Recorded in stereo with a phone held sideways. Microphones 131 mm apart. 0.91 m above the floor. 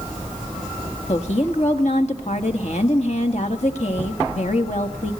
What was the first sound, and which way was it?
A woman speaking, 60° left (ahead or behind).